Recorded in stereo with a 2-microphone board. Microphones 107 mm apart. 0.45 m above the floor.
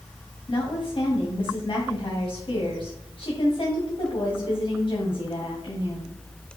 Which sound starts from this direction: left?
A woman speaking, at 0.5 s.